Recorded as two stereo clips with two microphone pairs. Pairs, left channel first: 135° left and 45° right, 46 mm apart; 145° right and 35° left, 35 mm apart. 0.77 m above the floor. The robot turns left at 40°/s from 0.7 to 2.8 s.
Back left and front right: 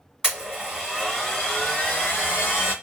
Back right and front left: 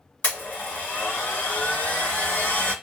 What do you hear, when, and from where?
0.2 s a blender: 115° right, 2 m; by 2.7 s 165° left, 2 m